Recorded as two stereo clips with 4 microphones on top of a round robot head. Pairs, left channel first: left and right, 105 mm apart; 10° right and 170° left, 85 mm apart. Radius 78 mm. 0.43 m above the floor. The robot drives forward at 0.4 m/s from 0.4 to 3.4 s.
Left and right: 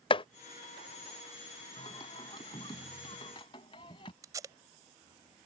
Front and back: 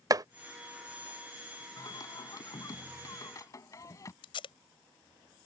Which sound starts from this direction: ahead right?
Tape being pulled, at 4.2 s.